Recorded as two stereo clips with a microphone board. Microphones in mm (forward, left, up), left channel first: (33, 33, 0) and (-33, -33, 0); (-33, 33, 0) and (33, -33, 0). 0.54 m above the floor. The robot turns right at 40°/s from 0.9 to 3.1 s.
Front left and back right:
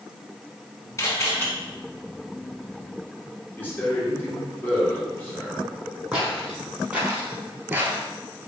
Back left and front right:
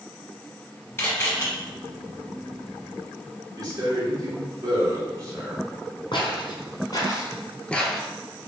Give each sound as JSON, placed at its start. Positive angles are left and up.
{"t": 1.0, "sound": "a camera shutter", "azimuth_deg": 80, "distance_m": 1.0}
{"t": 3.6, "sound": "a man speaking", "azimuth_deg": -15, "distance_m": 1.0}
{"t": 6.1, "sound": "footsteps", "azimuth_deg": 145, "distance_m": 1.1}